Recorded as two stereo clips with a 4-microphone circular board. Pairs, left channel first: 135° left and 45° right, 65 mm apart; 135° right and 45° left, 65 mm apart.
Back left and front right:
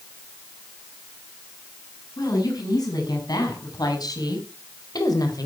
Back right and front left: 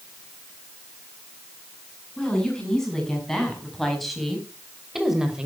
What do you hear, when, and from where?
2.2 s a woman speaking: 145° left, 7.5 m; by 5.5 s 125° left, 3 m